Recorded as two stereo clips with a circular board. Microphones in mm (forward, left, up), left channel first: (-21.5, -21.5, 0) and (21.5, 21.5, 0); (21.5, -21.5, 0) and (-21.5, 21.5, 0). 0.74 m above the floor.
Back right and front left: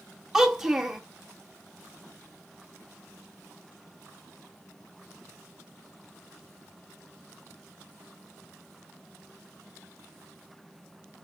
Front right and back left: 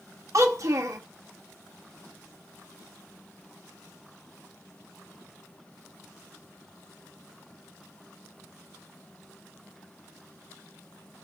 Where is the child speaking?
125° left, 1.0 m.